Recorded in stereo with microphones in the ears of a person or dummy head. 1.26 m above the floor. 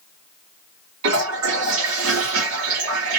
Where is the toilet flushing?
75° right (ahead or behind), 1.7 m.